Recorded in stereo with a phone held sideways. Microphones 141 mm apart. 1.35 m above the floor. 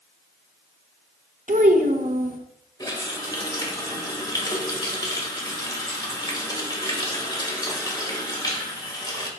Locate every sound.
1.5 s a child speaking: 65° right (ahead or behind), 0.9 m
2.8 s a running tap: 30° left (ahead or behind), 1.5 m